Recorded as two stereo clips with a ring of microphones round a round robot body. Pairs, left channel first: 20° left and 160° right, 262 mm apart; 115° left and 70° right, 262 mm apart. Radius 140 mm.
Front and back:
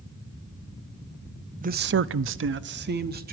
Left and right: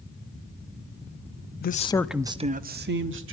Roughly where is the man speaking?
Behind left.